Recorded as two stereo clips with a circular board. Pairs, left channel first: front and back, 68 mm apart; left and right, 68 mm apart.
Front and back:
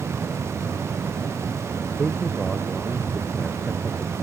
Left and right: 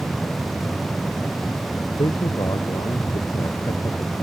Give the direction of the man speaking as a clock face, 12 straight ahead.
9 o'clock.